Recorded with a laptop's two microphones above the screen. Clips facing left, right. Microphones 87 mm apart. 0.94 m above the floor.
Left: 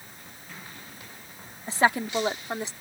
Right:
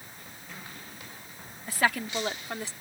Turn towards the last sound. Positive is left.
turn(degrees=20)  # may be behind; listen again after turning